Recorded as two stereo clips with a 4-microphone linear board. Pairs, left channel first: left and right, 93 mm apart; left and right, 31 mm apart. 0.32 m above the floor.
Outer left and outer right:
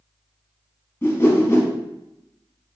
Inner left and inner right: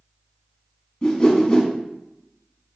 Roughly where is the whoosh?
Left.